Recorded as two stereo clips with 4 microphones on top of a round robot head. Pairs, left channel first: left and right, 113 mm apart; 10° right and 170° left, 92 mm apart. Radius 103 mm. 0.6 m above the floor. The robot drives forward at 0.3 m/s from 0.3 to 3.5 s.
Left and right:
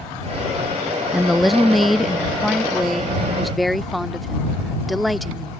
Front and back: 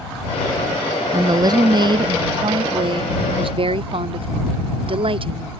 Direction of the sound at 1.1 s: Straight behind.